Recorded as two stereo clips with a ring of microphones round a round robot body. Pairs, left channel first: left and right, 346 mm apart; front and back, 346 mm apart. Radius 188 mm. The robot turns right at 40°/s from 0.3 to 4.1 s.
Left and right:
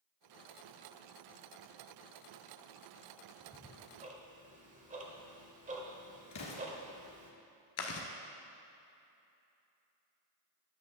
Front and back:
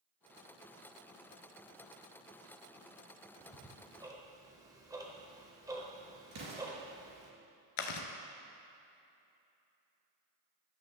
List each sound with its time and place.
3.4 s ticking: 145° right, 1.2 m; by 7.3 s 115° right, 1.2 m
6.3 s an explosion: 130° left, 2 m
7.8 s chewing: 35° left, 0.7 m